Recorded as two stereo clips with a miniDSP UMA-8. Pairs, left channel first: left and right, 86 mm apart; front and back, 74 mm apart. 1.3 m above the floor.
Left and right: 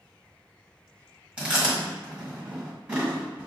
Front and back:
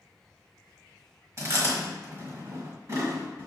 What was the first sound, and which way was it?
Chewing, 160° right.